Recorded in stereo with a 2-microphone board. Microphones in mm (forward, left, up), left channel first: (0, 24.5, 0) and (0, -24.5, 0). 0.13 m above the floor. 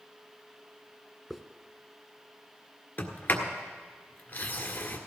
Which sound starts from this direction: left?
A sliding door, at 3.0 s.